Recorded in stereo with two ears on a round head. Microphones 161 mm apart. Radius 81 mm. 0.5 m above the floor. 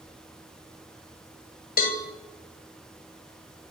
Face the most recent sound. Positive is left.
turn(degrees=55)  # may be behind; listen again after turning